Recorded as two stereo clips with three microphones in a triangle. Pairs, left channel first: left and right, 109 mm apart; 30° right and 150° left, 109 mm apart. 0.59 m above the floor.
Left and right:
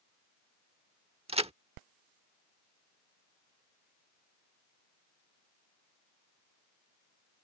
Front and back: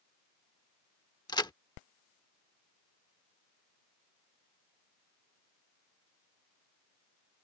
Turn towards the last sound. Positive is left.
turn(degrees=-80)